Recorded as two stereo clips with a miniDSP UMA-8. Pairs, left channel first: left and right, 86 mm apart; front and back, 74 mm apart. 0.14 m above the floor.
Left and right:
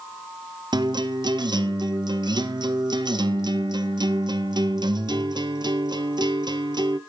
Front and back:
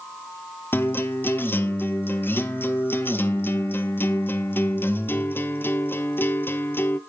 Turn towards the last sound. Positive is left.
turn(degrees=-60)